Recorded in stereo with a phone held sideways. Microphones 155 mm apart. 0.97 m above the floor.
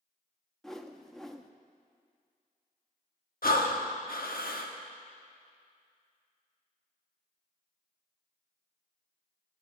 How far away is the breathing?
About 0.9 m.